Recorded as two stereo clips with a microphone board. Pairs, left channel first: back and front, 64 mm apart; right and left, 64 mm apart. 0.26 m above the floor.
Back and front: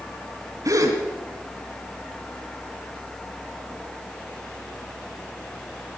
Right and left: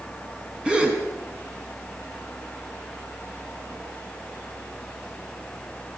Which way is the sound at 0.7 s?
20° left.